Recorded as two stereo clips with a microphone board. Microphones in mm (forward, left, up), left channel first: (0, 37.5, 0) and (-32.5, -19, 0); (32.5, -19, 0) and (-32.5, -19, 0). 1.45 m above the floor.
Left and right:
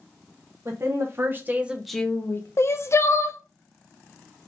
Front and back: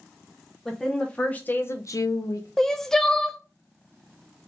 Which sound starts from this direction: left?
Crying, at 2.6 s.